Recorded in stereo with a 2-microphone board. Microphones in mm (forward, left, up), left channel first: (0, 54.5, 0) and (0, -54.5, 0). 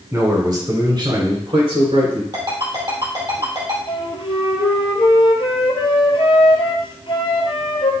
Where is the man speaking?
25° right (ahead or behind), 1.4 m; by 2.2 s 55° right (ahead or behind), 2 m.